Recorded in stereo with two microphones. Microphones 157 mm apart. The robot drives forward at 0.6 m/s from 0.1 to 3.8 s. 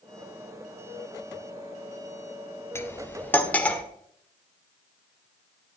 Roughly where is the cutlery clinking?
Centre.